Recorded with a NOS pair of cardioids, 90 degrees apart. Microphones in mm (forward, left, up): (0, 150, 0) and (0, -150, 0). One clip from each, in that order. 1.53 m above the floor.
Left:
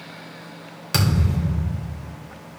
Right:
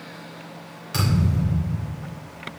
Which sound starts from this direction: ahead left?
A thud, at 0.9 s.